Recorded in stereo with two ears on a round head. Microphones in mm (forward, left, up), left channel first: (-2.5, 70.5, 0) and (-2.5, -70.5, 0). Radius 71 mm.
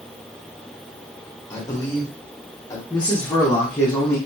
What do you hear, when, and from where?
1.5 s a man speaking: 20° left (ahead or behind), 1.6 m
2.9 s a man speaking: 15° left (ahead or behind), 1.4 m